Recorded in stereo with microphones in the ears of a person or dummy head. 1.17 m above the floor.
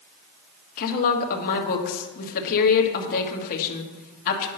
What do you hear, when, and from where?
0.8 s a woman speaking: 50° left (ahead or behind), 1.4 m